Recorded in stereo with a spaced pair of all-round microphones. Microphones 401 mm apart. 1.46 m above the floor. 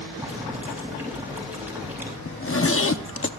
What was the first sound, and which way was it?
Boiling, 5° right (ahead or behind).